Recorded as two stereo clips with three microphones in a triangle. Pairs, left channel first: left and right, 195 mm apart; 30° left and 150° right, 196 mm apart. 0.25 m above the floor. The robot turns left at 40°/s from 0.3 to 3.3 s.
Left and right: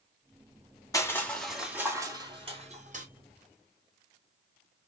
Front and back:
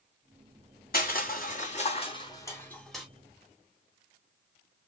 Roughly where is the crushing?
Ahead.